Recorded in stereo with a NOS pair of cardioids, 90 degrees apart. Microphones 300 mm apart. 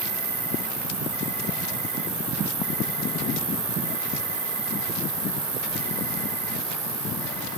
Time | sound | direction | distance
0.0 | an insect | 65° right | 3 m